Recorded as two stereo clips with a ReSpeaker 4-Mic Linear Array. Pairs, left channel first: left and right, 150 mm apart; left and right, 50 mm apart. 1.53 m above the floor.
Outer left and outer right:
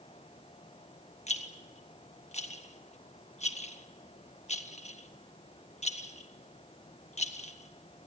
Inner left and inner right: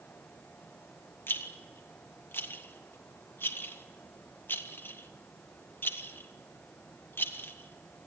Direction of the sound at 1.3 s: 50° left (ahead or behind).